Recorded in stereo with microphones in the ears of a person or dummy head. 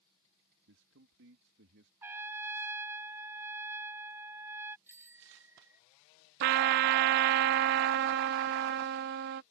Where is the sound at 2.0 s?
15° right (ahead or behind).